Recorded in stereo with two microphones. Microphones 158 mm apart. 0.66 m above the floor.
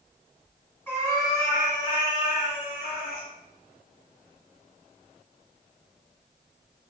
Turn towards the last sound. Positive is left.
turn(degrees=70)  # may be behind; listen again after turning